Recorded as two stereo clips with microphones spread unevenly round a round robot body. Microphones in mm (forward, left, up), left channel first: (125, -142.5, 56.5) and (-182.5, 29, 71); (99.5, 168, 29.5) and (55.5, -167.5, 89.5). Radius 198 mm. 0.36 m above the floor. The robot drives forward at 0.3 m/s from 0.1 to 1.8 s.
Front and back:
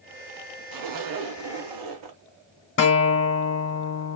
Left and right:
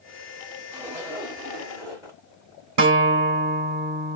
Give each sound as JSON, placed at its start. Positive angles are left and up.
{"t": 0.7, "sound": "a zipper", "azimuth_deg": 175, "distance_m": 0.6}
{"t": 2.8, "sound": "a guitar", "azimuth_deg": -85, "distance_m": 0.9}